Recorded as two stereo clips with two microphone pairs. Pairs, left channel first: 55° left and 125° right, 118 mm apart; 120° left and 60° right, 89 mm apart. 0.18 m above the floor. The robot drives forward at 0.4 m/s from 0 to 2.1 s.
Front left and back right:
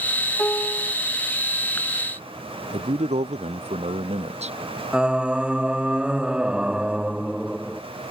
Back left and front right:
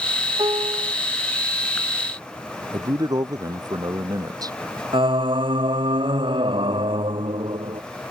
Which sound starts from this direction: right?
A man speaking, at 2.7 s.